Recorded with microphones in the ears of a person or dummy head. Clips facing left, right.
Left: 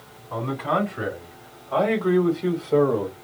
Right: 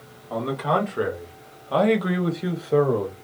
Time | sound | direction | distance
0.3 | a man speaking | 65° right (ahead or behind) | 1.8 m